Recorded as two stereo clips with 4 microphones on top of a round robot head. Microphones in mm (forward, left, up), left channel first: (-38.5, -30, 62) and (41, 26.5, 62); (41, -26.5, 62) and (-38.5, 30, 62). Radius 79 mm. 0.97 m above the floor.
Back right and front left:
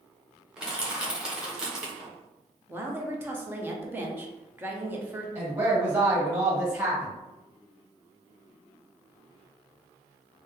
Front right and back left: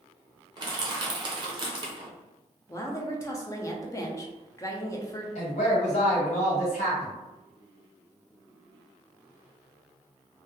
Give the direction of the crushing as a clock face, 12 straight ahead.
8 o'clock.